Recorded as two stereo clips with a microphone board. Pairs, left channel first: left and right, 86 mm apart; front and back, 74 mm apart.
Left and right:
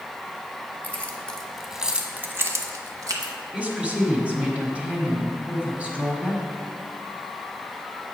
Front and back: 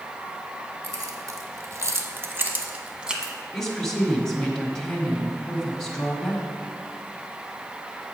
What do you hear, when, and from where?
0.8 s keys jangling: 155° left, 1.2 m; by 3.3 s 100° right, 1.2 m
3.5 s a woman speaking: 65° right, 1.4 m